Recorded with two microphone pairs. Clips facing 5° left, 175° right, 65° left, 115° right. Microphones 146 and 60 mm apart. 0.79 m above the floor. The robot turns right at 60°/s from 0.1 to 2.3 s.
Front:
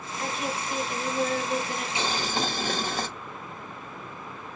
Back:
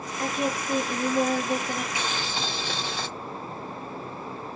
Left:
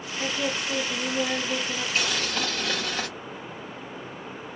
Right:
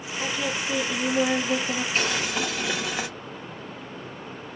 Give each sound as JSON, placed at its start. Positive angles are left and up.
{"t": 0.2, "sound": "a woman speaking", "azimuth_deg": 130, "distance_m": 1.8}
{"t": 1.9, "sound": "boiling", "azimuth_deg": -60, "distance_m": 0.8}